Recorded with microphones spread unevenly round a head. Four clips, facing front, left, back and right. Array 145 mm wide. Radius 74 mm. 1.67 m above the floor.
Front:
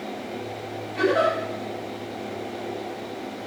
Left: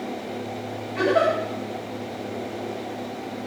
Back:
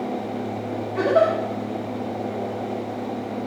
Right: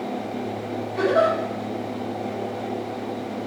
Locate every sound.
0.9 s a giggle: 165° left, 1.8 m